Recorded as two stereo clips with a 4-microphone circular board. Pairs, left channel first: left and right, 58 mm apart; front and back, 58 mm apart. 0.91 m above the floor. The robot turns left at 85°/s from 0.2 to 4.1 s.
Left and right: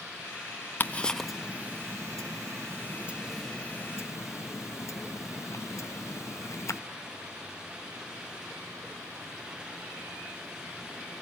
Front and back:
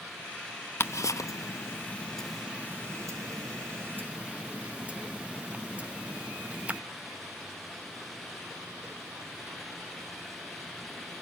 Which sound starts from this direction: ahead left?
Ticking, at 0.8 s.